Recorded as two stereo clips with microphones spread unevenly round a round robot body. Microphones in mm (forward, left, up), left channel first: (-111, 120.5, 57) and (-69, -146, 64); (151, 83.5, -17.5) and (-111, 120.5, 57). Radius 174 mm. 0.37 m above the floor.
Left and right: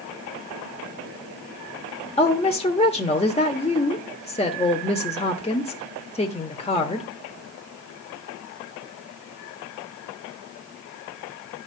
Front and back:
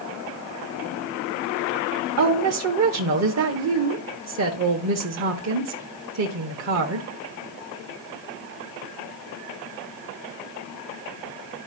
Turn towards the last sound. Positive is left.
turn(degrees=155)